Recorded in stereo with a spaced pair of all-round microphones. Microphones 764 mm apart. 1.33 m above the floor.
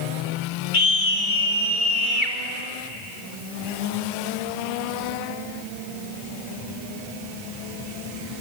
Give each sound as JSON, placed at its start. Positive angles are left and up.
{"t": 0.7, "sound": "a scream", "side_deg": 85, "distance_m": 2.5}